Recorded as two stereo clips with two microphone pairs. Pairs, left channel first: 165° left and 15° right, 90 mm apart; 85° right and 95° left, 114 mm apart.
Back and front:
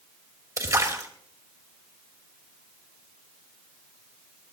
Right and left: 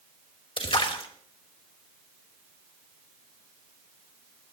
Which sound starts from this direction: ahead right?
A splash, at 0.6 s.